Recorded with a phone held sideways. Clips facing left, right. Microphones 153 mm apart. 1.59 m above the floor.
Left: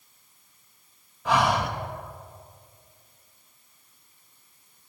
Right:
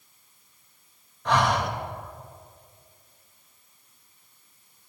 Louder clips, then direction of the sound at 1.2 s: Even; 5° left (ahead or behind).